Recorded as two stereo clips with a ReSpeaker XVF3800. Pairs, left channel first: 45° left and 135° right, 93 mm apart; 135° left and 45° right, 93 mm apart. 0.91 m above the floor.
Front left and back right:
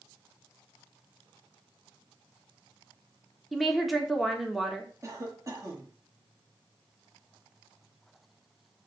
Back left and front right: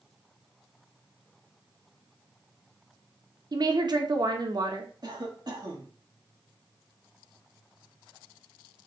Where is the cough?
85° right, 1.8 m.